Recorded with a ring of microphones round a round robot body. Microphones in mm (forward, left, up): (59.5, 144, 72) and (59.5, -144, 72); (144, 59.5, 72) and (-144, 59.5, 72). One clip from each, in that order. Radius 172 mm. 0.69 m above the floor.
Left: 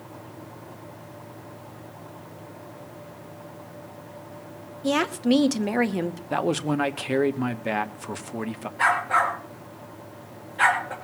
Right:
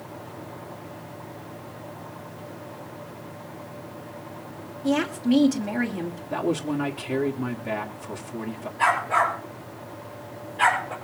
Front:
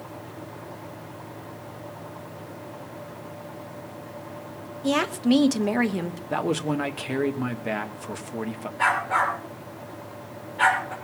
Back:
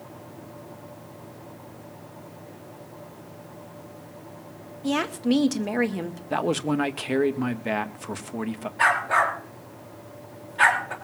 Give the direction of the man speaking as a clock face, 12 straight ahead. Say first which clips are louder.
Left 1 dB, back 1 dB; 8 o'clock.